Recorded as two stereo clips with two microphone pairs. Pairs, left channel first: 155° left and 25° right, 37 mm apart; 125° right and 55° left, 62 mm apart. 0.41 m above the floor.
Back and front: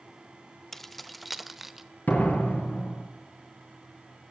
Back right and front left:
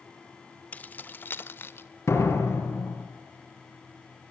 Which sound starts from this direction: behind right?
Keys jangling, at 0.7 s.